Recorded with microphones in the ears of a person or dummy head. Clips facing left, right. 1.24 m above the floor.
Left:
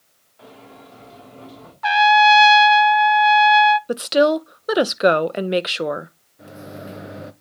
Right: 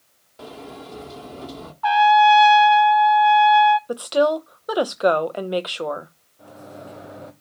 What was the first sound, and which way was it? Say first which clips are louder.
A sliding door: right 6 dB; 60° right (ahead or behind).